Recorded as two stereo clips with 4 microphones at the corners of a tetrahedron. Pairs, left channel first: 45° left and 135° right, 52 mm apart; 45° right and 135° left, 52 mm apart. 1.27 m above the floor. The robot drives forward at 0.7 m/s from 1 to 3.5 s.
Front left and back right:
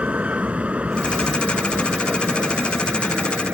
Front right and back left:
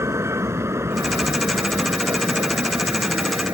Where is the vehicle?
160° left; by 3.5 s 165° left.